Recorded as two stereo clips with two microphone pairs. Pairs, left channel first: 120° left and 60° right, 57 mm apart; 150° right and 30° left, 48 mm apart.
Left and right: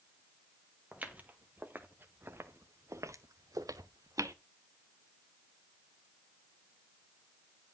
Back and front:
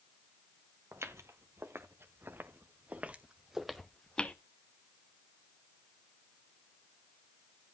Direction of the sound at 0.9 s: 5° left.